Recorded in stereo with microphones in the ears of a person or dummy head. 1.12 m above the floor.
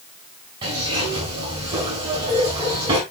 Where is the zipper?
30° right (ahead or behind), 6 m.